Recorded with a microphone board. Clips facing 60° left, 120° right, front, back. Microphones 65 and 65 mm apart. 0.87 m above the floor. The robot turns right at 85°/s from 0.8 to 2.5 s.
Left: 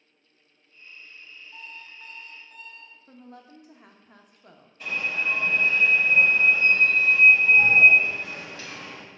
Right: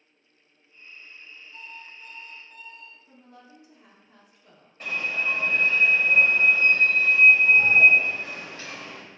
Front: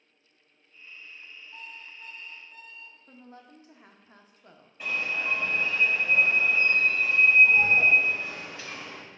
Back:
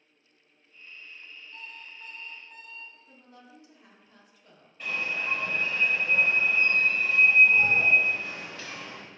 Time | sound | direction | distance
1.5 | an alarm clock | 65° left | 1.1 m
3.1 | a woman speaking | 45° left | 0.6 m
4.8 | an alarm | 75° right | 1.5 m